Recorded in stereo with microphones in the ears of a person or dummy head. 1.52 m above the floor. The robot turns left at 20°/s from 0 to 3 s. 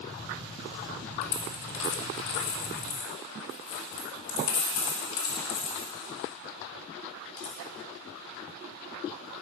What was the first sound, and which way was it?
A dropped coin, 50° left (ahead or behind).